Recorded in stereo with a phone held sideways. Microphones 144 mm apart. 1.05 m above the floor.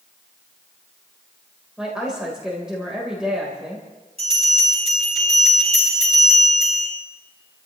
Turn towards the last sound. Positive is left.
turn(degrees=-45)  # may be behind; listen again after turning